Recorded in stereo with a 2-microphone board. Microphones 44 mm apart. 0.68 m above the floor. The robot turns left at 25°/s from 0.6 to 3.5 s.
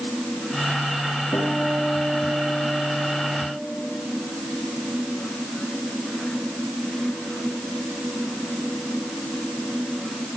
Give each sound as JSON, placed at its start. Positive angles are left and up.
{"t": 1.3, "sound": "a guitar", "azimuth_deg": 110, "distance_m": 9.0}